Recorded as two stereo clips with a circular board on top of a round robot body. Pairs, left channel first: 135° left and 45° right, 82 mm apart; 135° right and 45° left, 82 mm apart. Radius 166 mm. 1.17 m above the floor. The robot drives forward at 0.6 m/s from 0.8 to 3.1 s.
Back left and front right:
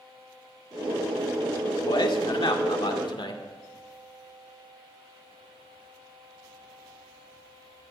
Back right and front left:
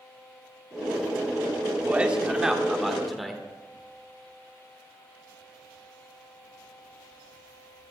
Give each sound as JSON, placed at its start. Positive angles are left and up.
{"t": 1.9, "sound": "a man speaking", "azimuth_deg": 120, "distance_m": 1.9}